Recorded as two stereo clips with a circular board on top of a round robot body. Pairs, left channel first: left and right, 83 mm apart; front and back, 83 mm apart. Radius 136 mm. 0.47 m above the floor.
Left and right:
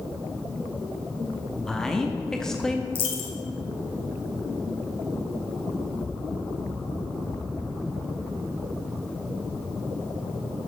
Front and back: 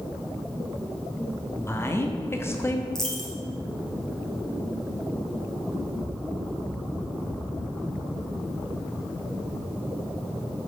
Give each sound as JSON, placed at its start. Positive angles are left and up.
{"t": 1.6, "sound": "a woman speaking", "azimuth_deg": 15, "distance_m": 1.0}
{"t": 3.0, "sound": "a dropped coin", "azimuth_deg": 85, "distance_m": 1.3}